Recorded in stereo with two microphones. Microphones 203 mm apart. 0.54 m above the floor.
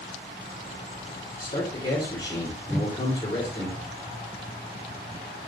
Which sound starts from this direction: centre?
A whoosh, at 2.7 s.